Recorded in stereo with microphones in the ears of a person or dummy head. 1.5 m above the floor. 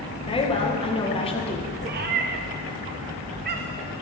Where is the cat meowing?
50° right (ahead or behind), 1.0 m.